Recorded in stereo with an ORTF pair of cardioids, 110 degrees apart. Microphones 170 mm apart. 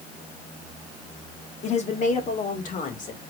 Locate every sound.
1.6 s a woman speaking: 40° left, 1.4 m; by 3.2 s 50° left, 2.5 m